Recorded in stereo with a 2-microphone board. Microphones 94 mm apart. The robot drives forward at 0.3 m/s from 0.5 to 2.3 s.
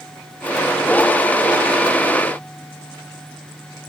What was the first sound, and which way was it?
Only background noise.